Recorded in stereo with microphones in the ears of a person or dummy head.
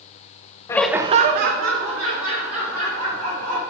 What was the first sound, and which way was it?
Laughter, 20° left (ahead or behind).